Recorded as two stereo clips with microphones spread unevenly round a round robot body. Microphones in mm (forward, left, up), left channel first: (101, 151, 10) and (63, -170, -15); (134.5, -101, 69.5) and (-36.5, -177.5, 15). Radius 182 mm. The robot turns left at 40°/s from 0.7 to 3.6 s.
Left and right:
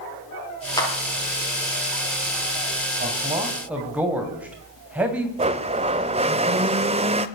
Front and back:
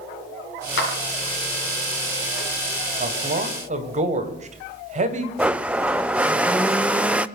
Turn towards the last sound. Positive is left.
turn(degrees=-130)